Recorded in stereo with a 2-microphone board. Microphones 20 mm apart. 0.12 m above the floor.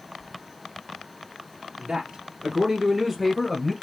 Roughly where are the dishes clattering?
No dishes clattering in this recording.